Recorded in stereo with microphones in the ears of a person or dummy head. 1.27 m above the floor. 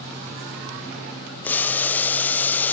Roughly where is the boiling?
Centre.